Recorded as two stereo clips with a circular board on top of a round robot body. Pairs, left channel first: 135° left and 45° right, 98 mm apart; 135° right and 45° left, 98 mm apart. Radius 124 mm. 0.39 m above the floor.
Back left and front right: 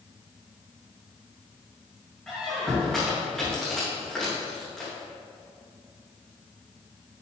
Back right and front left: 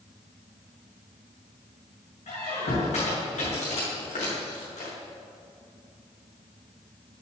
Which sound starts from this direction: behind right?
A squeak, at 2.3 s.